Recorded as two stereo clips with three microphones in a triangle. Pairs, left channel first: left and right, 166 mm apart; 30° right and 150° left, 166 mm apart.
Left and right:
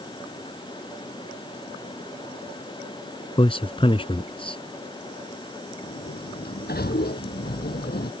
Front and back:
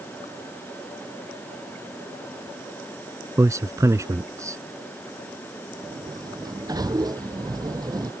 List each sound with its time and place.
3.4 s a man speaking: 95° left
5.8 s a sliding door: 85° left